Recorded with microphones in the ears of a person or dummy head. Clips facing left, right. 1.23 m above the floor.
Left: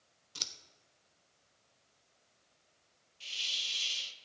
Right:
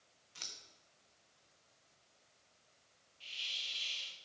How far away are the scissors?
About 1.0 m.